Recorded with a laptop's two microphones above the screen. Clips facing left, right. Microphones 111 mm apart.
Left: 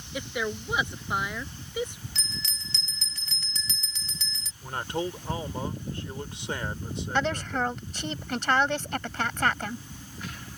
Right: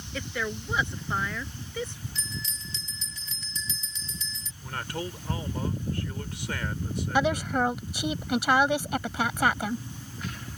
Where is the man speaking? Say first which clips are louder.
Left 4 dB; 25° left (ahead or behind).